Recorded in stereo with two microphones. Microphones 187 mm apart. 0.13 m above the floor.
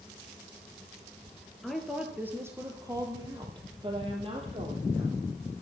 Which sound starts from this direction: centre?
A woman speaking, at 1.6 s.